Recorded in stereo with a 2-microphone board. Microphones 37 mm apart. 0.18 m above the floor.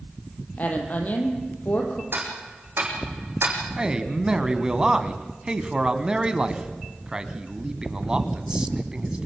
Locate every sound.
0.6 s a woman speaking: 45° left (ahead or behind), 5 m
2.1 s ticking: 80° right, 6 m
3.8 s a man speaking: 20° right (ahead or behind), 1.6 m